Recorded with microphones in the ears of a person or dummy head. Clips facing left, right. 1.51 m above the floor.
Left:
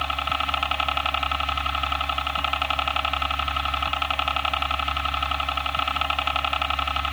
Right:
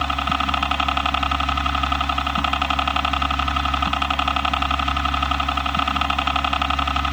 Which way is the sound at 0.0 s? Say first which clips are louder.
Right 6 dB; 65° right (ahead or behind).